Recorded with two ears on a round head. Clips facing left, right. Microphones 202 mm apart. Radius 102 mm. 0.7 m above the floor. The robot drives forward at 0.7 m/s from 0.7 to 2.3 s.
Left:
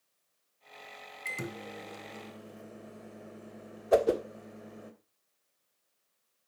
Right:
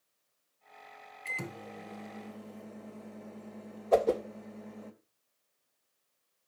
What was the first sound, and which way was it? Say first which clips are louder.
A microwave: left 2 dB; 20° left (ahead or behind).